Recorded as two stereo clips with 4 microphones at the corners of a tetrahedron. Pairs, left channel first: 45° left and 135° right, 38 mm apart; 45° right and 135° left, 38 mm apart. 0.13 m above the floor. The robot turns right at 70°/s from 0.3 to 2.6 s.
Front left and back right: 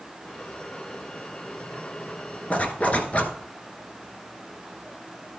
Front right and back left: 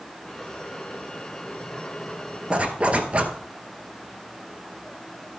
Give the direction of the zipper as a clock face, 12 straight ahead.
9 o'clock.